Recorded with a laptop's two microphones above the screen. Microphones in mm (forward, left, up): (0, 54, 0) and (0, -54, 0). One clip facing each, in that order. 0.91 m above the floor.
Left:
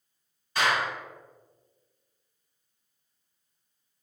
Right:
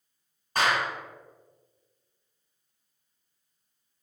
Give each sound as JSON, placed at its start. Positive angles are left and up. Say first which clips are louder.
{"t": 0.6, "sound": "a clap", "louder": "right 1 dB", "side_deg": -45, "distance_m": 1.8}